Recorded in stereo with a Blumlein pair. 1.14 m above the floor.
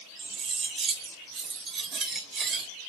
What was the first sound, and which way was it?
Cutlery clinking, 20° right.